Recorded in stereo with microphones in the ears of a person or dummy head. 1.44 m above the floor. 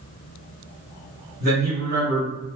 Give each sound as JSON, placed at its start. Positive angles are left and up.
{"t": 1.4, "sound": "a man speaking", "side_deg": -55, "distance_m": 1.9}